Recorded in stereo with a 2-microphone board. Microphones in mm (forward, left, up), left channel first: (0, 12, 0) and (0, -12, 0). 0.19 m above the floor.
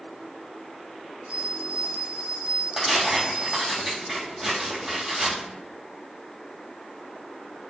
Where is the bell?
45° right (ahead or behind), 0.5 m.